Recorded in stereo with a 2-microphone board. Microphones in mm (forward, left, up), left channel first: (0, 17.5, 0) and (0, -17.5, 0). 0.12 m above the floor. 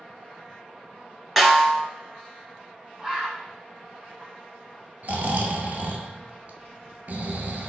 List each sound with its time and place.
1.4 s a snare drum: 5° right (ahead or behind), 0.9 m
3.0 s a bird: 15° right (ahead or behind), 0.9 m
5.0 s snoring: 55° right (ahead or behind), 0.5 m